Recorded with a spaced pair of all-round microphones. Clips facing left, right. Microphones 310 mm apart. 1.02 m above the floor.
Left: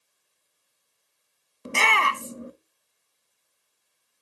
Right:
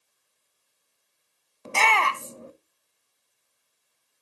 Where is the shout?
20° left (ahead or behind), 0.6 m.